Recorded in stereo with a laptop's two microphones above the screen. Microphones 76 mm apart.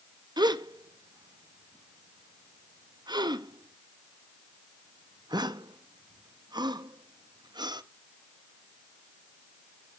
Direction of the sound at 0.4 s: 70° right (ahead or behind).